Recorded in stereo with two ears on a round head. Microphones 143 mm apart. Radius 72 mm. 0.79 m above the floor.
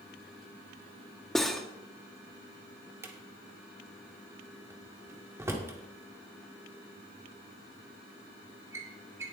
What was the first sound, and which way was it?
Cutlery clinking, centre (ahead or behind).